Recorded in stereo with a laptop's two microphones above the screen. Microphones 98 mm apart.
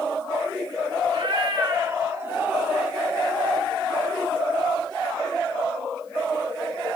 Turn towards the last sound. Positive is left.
turn(degrees=-10)  # may be behind; listen again after turning